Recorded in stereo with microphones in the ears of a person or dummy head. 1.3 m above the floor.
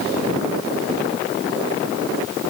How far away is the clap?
No clap in this recording.